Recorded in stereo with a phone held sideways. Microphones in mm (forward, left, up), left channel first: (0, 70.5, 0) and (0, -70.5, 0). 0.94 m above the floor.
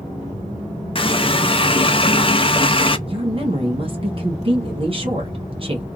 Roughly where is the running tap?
Left.